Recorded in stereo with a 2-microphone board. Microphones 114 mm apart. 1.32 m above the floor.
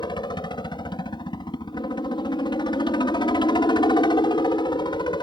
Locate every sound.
0.0 s a helicopter: 45° left (ahead or behind)